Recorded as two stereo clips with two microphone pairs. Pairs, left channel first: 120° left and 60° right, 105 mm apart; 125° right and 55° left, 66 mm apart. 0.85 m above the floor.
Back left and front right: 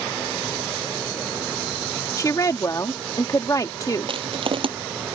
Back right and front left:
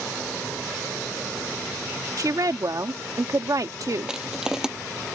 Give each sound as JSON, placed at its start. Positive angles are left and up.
{"t": 2.2, "sound": "a woman speaking", "azimuth_deg": 70}
{"t": 4.1, "sound": "crushing", "azimuth_deg": -25}